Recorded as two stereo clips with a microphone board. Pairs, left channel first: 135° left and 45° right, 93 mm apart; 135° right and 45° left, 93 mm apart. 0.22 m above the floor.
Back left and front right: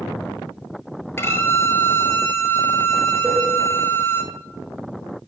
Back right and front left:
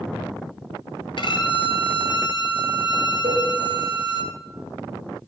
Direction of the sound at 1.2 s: 160° right.